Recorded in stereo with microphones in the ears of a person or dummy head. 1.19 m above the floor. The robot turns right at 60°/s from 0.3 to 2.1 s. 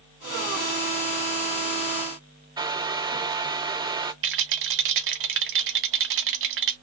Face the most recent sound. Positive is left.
turn(degrees=-65)  # may be behind; listen again after turning